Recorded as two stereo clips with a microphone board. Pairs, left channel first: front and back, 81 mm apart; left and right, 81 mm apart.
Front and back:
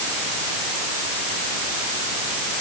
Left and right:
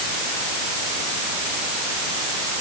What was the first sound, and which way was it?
Only background noise.